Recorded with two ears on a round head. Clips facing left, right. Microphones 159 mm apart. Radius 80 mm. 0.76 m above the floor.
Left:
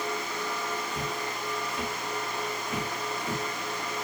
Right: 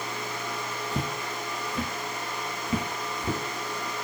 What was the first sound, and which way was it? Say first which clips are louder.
Footsteps: right 1 dB; 60° right (ahead or behind).